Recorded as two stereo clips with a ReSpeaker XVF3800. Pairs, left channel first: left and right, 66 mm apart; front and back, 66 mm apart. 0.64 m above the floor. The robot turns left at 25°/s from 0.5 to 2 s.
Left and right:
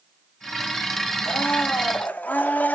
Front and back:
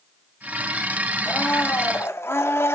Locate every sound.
1.2 s a blender: 55° left, 0.9 m; by 2.8 s 35° left, 0.9 m